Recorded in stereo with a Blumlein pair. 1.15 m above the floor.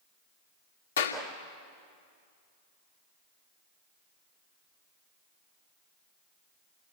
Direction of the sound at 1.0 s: 65° left.